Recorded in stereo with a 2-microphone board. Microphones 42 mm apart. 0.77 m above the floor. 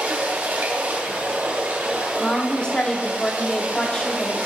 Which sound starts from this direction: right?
Running water, at 0.0 s.